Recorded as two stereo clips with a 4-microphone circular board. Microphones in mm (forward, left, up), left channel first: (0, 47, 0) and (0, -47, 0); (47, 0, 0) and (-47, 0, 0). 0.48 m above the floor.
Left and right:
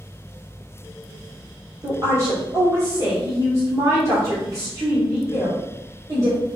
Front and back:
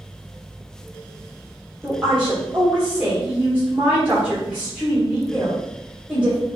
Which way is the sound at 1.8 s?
105° right.